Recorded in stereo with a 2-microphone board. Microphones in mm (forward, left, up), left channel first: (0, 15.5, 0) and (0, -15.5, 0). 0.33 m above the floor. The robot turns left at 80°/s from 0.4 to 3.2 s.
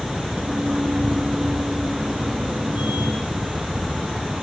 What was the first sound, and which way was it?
A helicopter, 60° left (ahead or behind).